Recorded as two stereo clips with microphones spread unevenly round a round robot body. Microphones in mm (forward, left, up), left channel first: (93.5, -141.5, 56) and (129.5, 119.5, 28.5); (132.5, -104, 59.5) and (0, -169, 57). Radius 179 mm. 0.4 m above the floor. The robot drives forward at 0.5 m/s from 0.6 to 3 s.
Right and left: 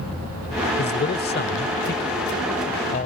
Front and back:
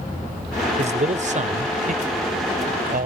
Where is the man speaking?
145° right; by 3.1 s 160° right.